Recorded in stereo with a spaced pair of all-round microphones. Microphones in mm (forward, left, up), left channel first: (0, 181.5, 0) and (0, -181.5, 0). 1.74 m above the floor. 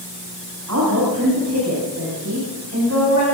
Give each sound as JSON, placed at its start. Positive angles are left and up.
{"t": 0.7, "sound": "a woman speaking", "side_deg": -50, "distance_m": 5.5}